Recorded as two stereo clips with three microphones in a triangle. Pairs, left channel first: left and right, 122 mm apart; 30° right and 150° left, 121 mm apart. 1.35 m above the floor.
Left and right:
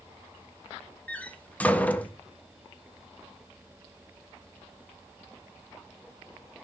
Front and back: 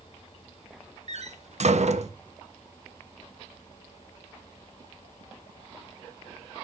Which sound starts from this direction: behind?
A door slam, at 1.1 s.